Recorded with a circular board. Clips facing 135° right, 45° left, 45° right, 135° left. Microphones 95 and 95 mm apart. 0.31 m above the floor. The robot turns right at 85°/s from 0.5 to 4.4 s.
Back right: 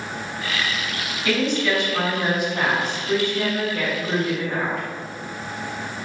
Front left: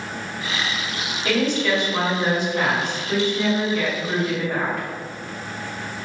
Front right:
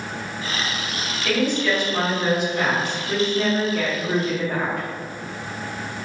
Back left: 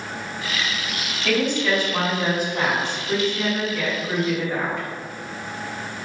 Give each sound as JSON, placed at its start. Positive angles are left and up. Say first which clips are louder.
{"t": 1.2, "sound": "a woman speaking", "louder": "front left 1 dB, even", "azimuth_deg": 55, "distance_m": 1.9}